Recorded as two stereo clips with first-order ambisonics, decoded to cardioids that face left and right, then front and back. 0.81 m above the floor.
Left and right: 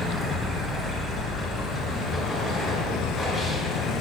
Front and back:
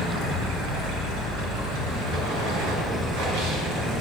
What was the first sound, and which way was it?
Running water, 175° right.